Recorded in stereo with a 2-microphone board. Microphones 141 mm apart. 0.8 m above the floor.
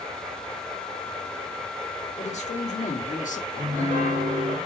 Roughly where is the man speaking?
Left.